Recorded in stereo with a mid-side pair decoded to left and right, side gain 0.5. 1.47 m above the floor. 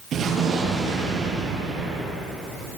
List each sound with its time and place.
0.1 s an explosion: 50° right, 9.5 m